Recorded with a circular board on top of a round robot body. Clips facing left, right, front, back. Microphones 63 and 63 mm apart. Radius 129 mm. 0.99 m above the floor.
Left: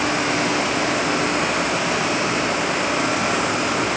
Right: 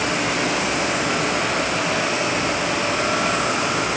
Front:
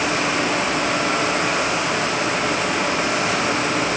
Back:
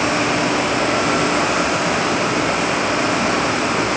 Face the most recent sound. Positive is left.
No sound to turn to.